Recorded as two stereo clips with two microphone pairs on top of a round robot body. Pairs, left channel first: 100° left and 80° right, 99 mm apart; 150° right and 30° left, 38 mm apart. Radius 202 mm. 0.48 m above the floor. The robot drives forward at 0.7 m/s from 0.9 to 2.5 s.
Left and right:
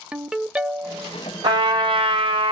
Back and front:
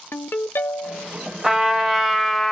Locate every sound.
0.1 s a ringtone: 165° right, 0.6 m; by 1.1 s 170° right, 0.7 m
1.4 s a trumpet: 40° right, 1.5 m; by 2.5 s 70° right, 1.2 m